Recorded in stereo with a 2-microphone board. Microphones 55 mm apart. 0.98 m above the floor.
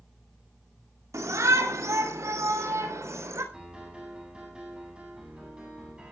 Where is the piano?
20° right (ahead or behind), 9 m.